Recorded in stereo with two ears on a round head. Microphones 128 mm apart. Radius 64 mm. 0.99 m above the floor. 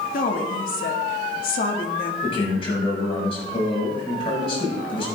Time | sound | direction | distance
0.1 | a woman speaking | 70° left (ahead or behind) | 2 m
2.2 | a man speaking | 40° left (ahead or behind) | 6.5 m